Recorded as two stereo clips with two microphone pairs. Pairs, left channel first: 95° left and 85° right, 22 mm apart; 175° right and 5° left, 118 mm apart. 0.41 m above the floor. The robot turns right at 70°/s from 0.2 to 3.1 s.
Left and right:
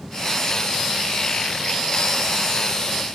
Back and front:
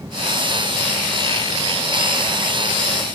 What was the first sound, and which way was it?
Only background noise.